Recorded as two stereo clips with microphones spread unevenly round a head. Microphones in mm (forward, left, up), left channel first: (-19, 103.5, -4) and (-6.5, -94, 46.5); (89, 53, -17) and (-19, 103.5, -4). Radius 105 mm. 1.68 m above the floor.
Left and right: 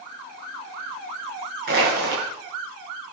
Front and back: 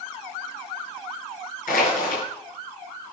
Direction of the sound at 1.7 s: 45° right.